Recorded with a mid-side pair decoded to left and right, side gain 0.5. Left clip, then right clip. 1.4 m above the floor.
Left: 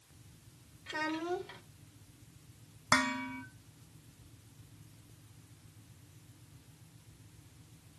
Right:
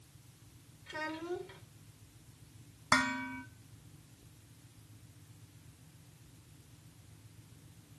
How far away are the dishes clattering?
About 1.3 m.